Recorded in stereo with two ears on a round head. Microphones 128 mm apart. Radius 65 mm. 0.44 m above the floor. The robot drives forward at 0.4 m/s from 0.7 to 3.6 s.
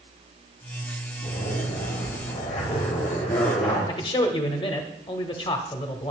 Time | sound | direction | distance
1.2 | a zipper | 60° left (ahead or behind) | 6 m
3.9 | a man speaking | 35° left (ahead or behind) | 1.0 m